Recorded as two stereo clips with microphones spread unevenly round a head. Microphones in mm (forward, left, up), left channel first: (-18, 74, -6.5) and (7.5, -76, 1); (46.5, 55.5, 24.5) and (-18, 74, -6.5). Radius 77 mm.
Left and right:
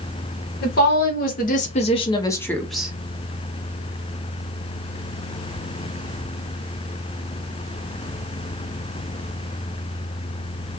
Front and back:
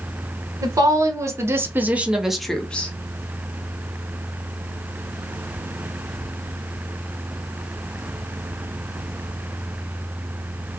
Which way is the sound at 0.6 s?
115° left.